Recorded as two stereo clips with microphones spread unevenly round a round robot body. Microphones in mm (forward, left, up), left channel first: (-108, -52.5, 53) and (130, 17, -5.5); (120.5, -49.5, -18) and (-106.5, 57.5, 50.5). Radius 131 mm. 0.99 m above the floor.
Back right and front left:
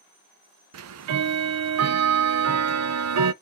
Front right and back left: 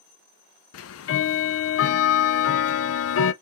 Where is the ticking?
Straight ahead, 0.6 m.